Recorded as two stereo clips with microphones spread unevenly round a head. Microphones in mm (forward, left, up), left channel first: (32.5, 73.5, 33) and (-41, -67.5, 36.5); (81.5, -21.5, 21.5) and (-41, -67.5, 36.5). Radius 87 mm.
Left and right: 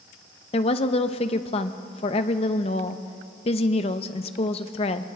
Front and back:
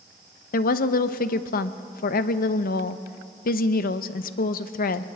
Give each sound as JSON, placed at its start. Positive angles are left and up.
{"t": 0.5, "sound": "a woman speaking", "azimuth_deg": 5, "distance_m": 0.6}